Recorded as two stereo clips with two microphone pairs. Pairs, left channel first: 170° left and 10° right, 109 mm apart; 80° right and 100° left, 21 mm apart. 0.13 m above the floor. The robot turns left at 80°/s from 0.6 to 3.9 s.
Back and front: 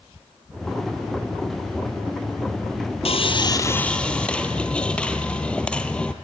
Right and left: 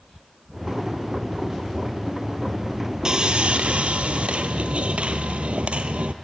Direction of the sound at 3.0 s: 155° left.